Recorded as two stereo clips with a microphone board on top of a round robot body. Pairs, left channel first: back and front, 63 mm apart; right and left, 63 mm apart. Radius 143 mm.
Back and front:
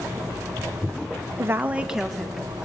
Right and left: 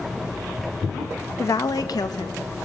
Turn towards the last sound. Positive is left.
turn(degrees=-95)